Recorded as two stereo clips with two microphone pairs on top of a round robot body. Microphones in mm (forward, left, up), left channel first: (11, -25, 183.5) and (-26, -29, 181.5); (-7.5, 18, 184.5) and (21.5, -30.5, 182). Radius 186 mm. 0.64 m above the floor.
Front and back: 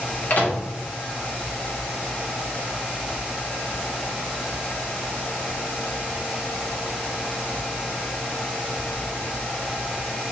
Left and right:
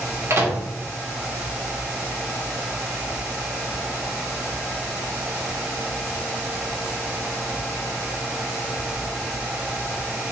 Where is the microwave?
30° right, 2.5 m.